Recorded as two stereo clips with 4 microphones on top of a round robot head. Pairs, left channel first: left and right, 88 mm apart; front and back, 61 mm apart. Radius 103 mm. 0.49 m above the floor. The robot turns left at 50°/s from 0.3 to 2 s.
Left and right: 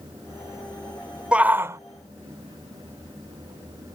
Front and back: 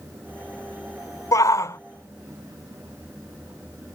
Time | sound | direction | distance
1.3 | a shout | 15° right | ?